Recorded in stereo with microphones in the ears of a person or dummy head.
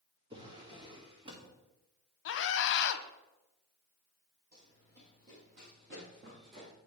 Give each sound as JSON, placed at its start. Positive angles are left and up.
{"t": 0.3, "sound": "a drawer", "side_deg": -35, "distance_m": 1.4}
{"t": 2.2, "sound": "a scream", "side_deg": 65, "distance_m": 0.9}
{"t": 4.5, "sound": "running footsteps", "side_deg": -50, "distance_m": 3.5}